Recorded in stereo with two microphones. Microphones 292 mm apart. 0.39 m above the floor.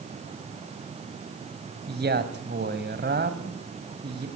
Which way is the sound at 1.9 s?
35° right (ahead or behind).